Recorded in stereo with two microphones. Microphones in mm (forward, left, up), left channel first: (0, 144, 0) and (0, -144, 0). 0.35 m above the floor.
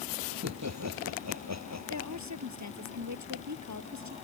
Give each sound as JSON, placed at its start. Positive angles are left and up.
{"t": 0.3, "sound": "laughter", "side_deg": -70}
{"t": 1.9, "sound": "a woman speaking", "side_deg": -75}